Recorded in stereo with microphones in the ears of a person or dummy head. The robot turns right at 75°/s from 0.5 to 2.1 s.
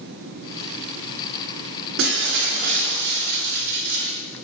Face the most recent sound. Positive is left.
turn(degrees=-60)  # may be behind; listen again after turning